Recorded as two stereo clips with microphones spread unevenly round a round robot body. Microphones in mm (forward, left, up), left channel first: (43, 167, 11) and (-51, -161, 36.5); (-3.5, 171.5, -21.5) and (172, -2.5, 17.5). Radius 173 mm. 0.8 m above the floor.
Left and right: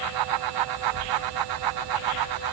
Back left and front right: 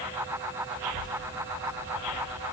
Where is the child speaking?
75° right, 3.5 m; by 2.4 s 35° right, 2.5 m.